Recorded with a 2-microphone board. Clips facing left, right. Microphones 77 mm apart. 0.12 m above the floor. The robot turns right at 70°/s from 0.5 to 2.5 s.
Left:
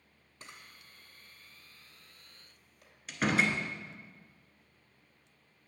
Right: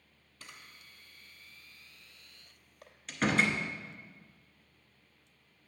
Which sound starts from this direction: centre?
A door slam, at 3.1 s.